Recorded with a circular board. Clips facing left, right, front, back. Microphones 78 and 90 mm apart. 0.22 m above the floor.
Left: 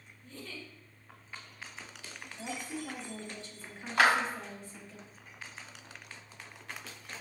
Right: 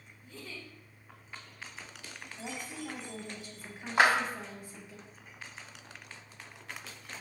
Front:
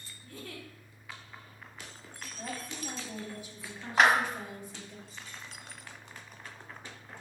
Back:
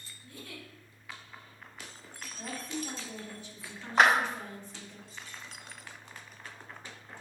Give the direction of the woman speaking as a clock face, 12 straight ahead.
1 o'clock.